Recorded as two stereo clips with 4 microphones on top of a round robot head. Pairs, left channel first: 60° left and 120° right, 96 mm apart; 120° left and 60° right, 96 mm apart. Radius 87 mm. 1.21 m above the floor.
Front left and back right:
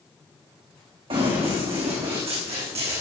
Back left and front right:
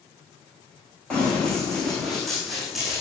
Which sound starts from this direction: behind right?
Running footsteps, at 1.1 s.